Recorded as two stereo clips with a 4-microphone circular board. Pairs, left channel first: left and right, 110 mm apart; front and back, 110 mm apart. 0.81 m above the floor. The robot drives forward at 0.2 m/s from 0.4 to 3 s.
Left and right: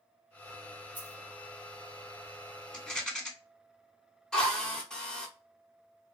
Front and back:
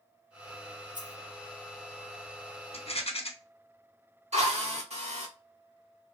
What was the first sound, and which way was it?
A dropped coin, 160° right.